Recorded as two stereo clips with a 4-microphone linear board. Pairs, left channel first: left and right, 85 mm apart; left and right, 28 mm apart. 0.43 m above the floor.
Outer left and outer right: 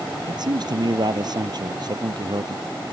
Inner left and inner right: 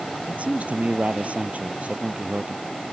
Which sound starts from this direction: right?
A man speaking, at 0.3 s.